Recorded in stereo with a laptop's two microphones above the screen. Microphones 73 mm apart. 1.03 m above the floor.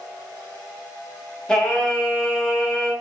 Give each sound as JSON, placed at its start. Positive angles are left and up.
{"t": 1.5, "sound": "singing", "side_deg": 10, "distance_m": 0.6}